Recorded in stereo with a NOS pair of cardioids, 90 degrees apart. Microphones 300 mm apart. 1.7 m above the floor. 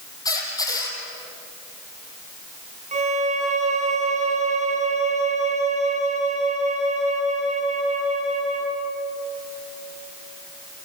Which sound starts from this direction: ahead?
A squeak, at 0.2 s.